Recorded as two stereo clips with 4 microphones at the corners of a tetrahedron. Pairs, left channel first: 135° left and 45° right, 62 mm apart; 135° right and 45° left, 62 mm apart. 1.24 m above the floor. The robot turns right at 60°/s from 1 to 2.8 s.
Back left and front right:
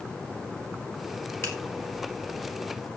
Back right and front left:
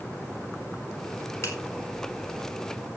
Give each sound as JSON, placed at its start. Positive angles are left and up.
{"t": 1.4, "sound": "a finger snap", "azimuth_deg": 175, "distance_m": 4.5}